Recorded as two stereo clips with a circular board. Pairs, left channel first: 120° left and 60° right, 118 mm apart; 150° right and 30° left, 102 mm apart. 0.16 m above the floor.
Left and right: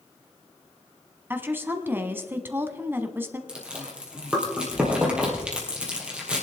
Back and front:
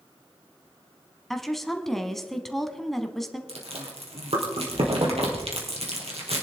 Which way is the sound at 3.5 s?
20° left.